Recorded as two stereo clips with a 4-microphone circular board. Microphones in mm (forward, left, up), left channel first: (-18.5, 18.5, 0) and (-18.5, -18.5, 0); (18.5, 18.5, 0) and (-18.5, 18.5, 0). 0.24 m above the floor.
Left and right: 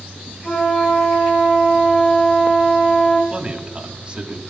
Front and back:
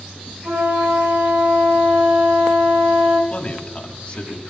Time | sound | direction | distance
0.4 | a flute | 125° left | 8 m
3.3 | a man speaking | 40° right | 2 m